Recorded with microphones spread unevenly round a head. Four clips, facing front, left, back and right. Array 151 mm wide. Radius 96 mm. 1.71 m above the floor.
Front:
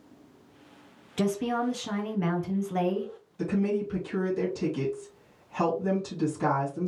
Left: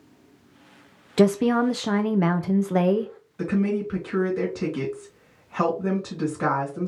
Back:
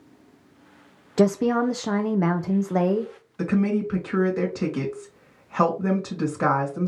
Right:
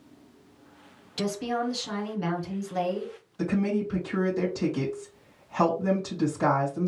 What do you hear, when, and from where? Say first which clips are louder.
1.2 s a woman speaking: left 10 dB, back 8 dB; 120° left, 0.7 m
3.4 s a woman speaking: left 2 dB, back 4 dB; 160° left, 3 m